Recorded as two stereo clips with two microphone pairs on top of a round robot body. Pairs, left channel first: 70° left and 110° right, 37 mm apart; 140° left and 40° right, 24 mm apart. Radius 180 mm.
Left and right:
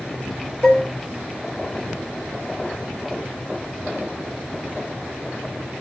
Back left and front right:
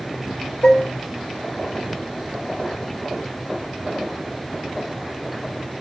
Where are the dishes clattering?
150° left, 1.0 m.